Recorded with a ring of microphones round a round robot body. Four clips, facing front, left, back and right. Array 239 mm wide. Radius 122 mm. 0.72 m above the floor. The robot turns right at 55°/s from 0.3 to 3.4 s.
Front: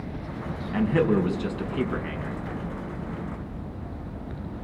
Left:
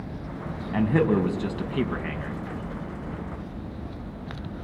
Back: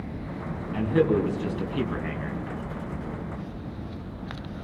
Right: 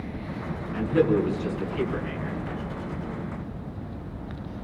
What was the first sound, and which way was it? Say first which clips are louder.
A man speaking: even, even; 65° left.